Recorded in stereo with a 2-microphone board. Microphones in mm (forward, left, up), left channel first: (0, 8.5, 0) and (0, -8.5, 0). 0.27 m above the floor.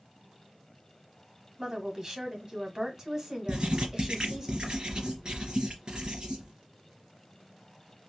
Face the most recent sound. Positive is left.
turn(degrees=-50)  # may be behind; listen again after turning